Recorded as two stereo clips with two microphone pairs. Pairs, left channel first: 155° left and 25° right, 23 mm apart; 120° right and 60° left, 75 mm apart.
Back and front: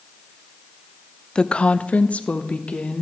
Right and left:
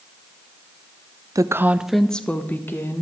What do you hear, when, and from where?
1.4 s a woman speaking: 100° left, 0.5 m; by 3.0 s straight behind, 1.2 m